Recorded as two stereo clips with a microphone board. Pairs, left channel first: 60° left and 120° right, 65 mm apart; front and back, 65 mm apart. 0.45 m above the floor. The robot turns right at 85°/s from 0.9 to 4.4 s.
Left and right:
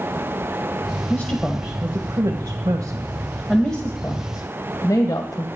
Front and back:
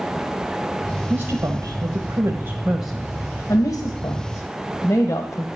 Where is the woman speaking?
115° left, 1.7 m; by 5.5 s 35° left, 1.7 m.